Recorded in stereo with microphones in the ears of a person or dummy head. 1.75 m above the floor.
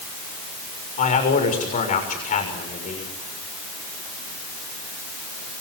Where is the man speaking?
40° left (ahead or behind), 6.5 m.